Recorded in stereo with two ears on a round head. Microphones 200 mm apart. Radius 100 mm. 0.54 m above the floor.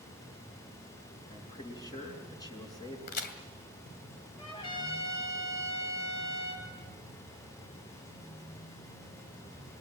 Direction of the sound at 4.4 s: 25° left (ahead or behind).